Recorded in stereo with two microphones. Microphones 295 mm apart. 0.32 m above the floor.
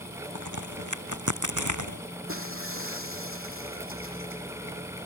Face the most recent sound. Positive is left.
turn(degrees=-45)  # may be behind; listen again after turning